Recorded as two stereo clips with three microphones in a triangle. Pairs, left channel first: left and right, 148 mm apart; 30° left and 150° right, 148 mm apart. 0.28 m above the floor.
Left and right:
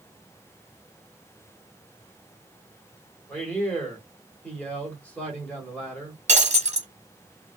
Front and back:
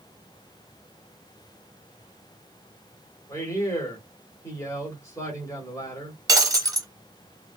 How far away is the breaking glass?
About 0.8 m.